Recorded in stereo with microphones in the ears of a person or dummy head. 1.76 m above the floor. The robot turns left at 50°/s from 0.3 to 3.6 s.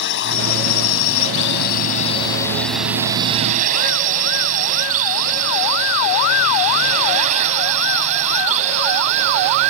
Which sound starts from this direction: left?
A drone, at 0.0 s.